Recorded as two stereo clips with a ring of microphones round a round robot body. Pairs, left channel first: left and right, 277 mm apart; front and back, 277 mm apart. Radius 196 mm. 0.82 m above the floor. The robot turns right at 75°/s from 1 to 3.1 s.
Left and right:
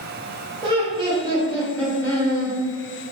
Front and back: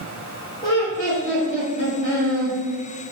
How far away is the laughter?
About 0.8 m.